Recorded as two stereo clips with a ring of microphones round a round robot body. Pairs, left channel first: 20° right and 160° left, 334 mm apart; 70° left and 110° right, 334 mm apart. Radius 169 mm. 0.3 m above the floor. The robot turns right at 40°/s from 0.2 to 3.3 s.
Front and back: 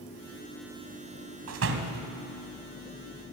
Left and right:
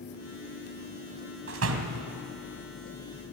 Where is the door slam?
165° right, 1.8 m; by 2.1 s 140° right, 1.8 m.